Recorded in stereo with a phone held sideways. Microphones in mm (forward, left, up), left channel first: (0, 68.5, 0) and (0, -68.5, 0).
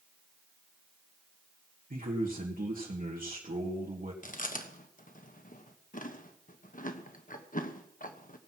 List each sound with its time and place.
1.9 s a man speaking: 80° right, 1.7 m
4.2 s chewing: 70° left (ahead or behind), 1.2 m